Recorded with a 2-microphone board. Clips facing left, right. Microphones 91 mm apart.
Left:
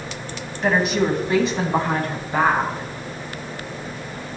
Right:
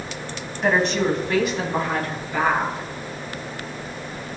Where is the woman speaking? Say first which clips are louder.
Left 1 dB; 5° right (ahead or behind), 1.0 m; by 2.8 s 50° left (ahead or behind), 1.8 m.